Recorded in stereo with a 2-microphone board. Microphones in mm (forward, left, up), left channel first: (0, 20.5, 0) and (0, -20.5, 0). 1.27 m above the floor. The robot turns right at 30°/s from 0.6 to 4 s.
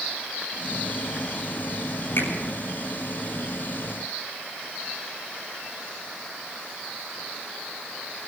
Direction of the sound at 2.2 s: 60° left (ahead or behind).